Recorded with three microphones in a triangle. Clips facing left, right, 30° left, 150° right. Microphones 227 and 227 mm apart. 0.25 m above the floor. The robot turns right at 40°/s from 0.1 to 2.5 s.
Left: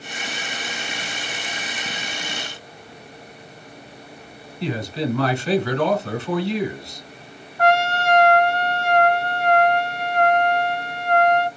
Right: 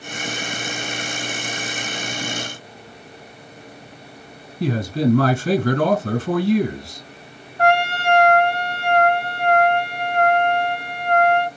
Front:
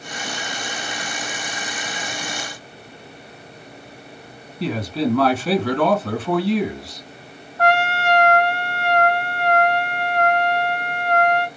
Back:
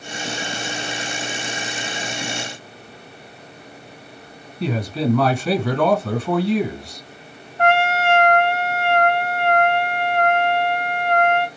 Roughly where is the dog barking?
I don't hear a dog barking.